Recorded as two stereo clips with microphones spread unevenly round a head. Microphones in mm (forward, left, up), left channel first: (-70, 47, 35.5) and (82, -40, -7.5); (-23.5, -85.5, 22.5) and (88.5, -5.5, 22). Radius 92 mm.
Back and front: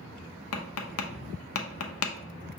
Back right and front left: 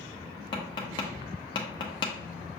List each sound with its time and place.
0.5 s tapping: 150° left, 0.7 m